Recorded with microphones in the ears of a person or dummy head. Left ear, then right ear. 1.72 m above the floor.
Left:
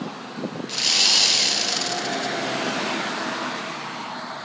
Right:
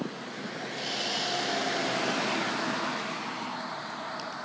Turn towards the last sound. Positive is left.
turn(degrees=35)  # may be behind; listen again after turning